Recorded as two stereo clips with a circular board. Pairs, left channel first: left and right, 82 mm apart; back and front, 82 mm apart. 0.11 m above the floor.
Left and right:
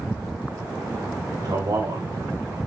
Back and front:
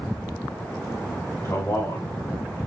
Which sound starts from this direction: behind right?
A man speaking, at 1.4 s.